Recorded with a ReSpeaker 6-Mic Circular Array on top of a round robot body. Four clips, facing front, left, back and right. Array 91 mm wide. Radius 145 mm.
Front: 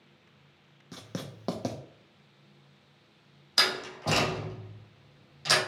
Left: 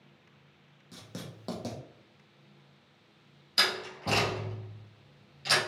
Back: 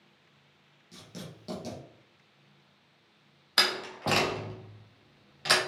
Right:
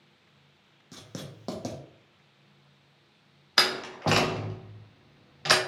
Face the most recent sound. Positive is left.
turn(degrees=-110)